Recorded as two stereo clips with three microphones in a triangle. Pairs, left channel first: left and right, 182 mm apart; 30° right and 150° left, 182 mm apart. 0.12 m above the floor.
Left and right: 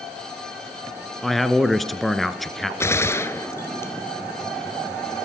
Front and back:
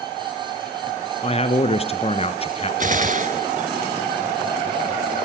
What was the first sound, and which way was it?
A man speaking, straight ahead.